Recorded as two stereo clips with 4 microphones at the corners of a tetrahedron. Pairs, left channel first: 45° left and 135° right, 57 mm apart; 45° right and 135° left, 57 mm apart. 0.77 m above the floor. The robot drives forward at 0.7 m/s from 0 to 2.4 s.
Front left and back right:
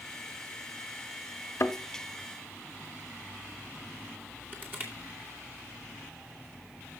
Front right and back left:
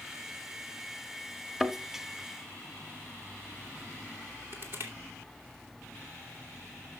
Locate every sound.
1.6 s a thud: 50° left, 0.9 m; by 1.8 s 60° left, 0.8 m
4.5 s crushing: 175° left, 2.5 m